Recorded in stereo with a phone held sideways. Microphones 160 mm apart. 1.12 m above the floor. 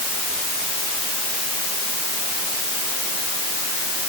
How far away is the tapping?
I don't hear tapping.